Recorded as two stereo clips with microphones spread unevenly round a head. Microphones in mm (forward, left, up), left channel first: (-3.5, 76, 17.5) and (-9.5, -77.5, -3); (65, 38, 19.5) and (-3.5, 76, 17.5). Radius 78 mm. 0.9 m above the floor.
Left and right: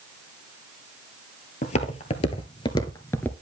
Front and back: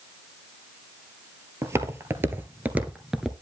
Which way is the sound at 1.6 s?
105° left.